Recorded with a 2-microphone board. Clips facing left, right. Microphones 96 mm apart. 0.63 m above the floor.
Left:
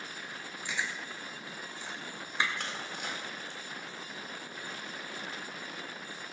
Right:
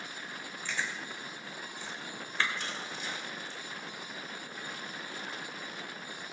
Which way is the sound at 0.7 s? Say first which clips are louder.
Even; 20° left (ahead or behind).